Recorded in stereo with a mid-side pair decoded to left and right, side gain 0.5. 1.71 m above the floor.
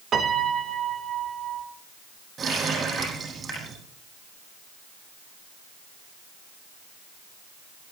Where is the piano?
45° right, 3 m.